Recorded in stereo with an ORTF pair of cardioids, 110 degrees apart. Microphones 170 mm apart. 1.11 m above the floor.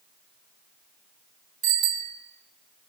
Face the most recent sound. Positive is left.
turn(degrees=-65)